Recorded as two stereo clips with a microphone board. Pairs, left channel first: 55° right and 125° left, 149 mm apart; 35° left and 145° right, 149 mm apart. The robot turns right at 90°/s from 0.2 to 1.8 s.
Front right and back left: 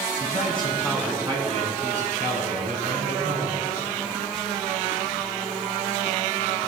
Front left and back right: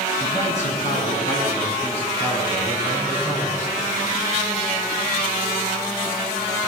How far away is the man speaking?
About 2.5 m.